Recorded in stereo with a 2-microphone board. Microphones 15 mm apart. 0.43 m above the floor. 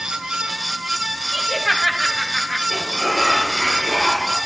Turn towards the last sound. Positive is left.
turn(degrees=-20)  # may be behind; listen again after turning